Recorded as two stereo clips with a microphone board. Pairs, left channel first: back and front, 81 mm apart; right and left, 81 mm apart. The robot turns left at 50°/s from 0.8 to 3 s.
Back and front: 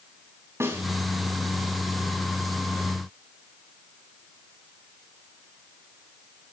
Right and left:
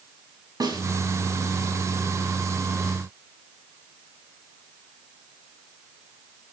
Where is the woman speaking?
No woman speaking in this recording.